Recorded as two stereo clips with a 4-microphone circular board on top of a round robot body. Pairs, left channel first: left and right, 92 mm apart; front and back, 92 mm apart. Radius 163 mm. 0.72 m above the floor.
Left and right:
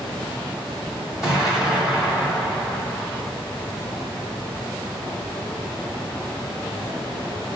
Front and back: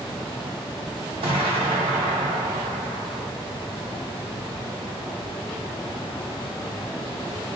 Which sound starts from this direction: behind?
An explosion, at 1.2 s.